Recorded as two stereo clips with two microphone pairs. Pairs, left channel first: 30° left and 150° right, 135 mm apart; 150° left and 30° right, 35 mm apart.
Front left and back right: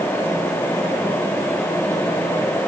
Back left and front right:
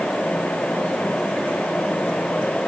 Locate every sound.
Only background noise.